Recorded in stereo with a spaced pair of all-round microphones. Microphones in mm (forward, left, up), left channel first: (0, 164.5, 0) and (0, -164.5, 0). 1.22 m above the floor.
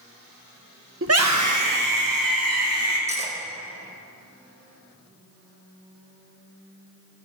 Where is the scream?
40° right (ahead or behind), 0.8 m; by 3.0 s 75° right (ahead or behind), 3.5 m.